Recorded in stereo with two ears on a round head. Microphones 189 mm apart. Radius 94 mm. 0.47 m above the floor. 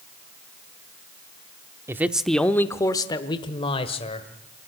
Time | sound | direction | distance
1.9 | a man speaking | 15° right (ahead or behind) | 0.7 m